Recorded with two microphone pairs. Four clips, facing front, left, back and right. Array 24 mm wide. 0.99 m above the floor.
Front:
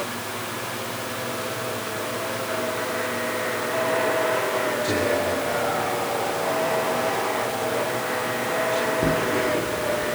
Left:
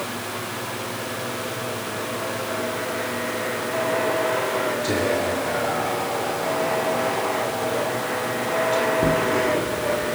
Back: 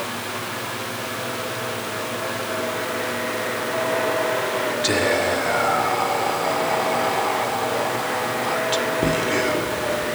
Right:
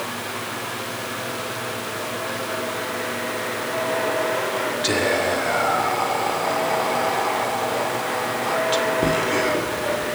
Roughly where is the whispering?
Behind right.